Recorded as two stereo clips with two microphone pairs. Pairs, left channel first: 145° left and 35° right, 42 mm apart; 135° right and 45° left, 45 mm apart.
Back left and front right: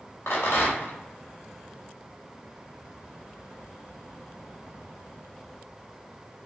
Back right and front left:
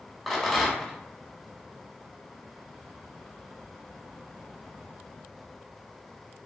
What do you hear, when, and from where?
0.3 s a rattle: 140° left, 0.9 m